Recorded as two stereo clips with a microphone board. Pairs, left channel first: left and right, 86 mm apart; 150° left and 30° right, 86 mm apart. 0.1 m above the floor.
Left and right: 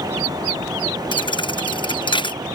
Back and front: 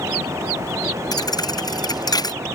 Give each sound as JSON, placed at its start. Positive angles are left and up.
{"t": 1.1, "sound": "a thud", "azimuth_deg": 110}